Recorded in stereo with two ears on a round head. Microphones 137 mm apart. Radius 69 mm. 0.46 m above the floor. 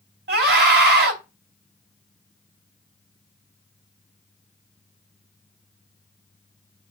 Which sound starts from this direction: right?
A scream, at 0.3 s.